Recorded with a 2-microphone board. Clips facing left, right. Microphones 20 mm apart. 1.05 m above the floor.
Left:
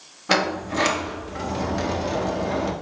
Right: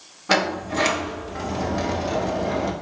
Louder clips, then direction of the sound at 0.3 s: Even; centre (ahead or behind).